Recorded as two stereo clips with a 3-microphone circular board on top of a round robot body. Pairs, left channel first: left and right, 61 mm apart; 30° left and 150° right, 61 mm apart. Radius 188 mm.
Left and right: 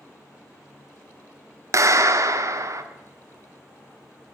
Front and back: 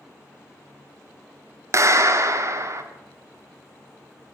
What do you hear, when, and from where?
1.7 s a clap: 115° right, 1.7 m